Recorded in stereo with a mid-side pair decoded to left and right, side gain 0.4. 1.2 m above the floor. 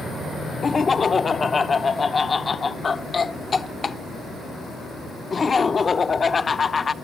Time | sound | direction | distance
0.6 | laughter | 40° left | 0.9 m